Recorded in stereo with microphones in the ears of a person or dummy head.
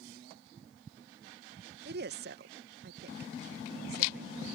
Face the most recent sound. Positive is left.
turn(degrees=-55)  # may be behind; listen again after turning